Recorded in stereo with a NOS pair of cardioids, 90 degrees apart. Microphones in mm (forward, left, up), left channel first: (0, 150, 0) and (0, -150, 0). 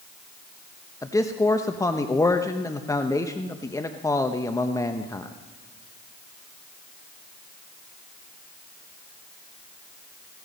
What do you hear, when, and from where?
1.0 s a man speaking: 10° left, 0.9 m